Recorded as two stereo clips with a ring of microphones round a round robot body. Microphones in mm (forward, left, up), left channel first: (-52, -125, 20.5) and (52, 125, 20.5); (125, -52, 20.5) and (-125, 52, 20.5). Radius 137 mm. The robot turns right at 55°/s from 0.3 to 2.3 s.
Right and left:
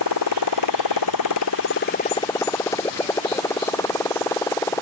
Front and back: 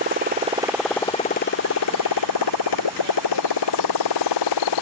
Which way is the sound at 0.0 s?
145° right.